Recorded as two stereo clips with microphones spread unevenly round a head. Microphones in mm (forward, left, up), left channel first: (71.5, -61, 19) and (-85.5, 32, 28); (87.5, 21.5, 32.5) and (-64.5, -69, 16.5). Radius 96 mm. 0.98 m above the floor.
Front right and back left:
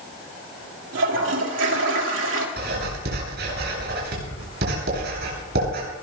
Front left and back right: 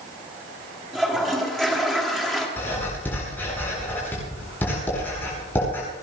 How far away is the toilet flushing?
About 3 m.